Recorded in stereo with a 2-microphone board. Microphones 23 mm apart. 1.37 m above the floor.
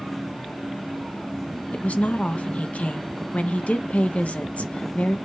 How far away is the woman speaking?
About 1.0 m.